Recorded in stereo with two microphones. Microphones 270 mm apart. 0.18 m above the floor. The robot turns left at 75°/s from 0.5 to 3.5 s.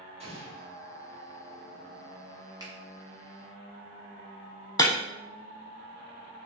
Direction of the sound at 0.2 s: 20° right (ahead or behind).